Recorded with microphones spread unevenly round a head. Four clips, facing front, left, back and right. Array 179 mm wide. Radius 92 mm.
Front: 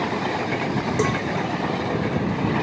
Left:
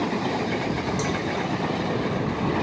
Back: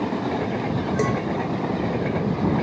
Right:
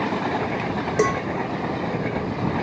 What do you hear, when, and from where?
1.0 s a cowbell: 65° right